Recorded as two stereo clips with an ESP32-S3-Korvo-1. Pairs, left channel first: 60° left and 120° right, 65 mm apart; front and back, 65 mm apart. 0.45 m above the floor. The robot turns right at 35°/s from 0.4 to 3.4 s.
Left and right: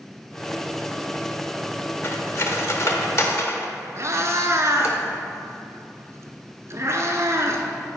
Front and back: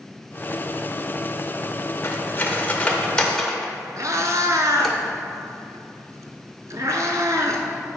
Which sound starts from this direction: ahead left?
Cutlery clinking, at 2.0 s.